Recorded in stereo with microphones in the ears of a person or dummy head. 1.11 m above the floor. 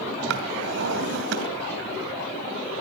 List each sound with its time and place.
0.3 s a drawer: 75° right (ahead or behind), 2.5 m